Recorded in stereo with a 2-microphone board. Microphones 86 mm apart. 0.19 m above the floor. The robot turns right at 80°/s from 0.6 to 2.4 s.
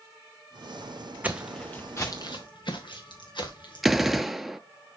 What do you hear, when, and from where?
1.2 s footsteps: 15° right (ahead or behind), 0.9 m; by 3.8 s 65° left (ahead or behind), 3 m
3.8 s a gunshot: 5° right (ahead or behind), 0.5 m